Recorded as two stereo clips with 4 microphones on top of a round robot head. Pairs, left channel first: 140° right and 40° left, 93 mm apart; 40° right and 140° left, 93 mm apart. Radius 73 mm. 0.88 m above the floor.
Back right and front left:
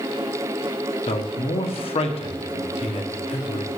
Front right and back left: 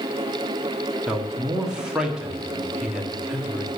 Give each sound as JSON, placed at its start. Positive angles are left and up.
{"t": 1.1, "sound": "a man speaking", "azimuth_deg": -140, "distance_m": 1.5}